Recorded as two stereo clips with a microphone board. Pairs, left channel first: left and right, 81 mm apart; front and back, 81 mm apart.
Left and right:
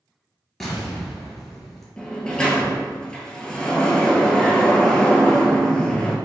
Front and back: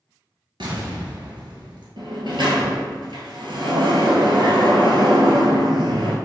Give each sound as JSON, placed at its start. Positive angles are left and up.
{"t": 0.6, "sound": "an explosion", "azimuth_deg": 175, "distance_m": 1.3}
{"t": 2.0, "sound": "a sliding door", "azimuth_deg": 170, "distance_m": 0.8}